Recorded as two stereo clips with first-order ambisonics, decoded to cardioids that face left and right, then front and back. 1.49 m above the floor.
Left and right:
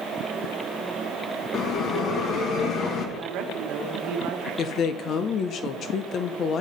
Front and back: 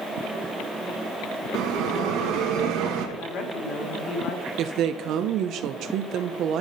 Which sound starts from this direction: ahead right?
A woman speaking, at 3.2 s.